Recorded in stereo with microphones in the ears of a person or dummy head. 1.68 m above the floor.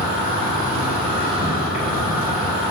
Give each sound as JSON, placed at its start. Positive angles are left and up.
{"t": 0.0, "sound": "an insect", "side_deg": 35, "distance_m": 2.5}